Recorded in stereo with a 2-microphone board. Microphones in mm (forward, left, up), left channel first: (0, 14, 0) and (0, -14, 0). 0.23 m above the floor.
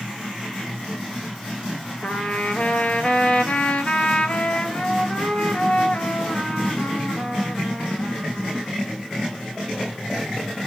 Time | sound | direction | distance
2.0 | a trumpet | 45° left (ahead or behind) | 0.8 m